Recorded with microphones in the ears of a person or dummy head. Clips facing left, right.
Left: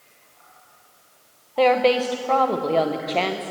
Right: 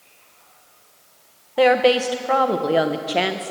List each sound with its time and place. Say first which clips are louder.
1.6 s a woman speaking: right 2 dB; 5° right (ahead or behind), 0.5 m